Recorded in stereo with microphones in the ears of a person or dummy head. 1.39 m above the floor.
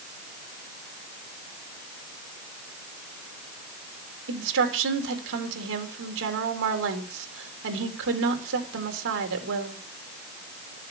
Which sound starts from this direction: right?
A woman speaking, at 4.3 s.